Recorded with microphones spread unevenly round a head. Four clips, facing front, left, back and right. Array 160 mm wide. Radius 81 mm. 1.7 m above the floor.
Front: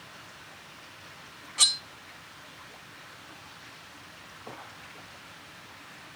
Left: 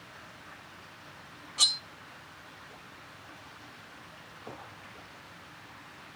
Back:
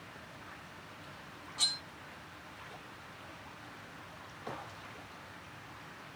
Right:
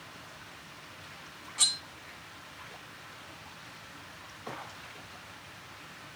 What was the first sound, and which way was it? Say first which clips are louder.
Cutlery clinking: left 3 dB, front 8 dB; 20° left.